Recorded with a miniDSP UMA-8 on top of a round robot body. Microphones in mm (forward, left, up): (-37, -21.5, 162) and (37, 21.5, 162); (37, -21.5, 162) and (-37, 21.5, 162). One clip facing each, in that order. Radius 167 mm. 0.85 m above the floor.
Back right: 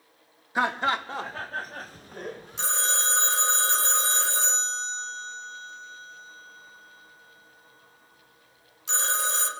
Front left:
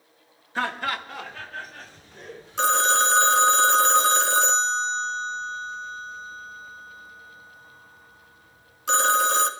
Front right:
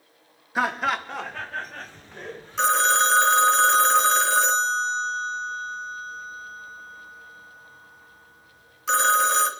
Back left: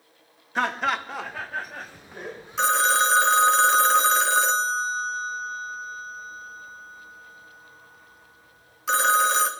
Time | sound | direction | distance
0.6 | laughter | 100° right | 1.0 m
2.6 | a phone ringing | 60° left | 1.0 m